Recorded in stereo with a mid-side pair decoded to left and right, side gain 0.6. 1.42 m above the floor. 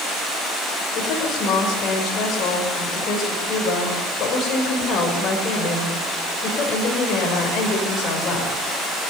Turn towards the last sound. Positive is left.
turn(degrees=50)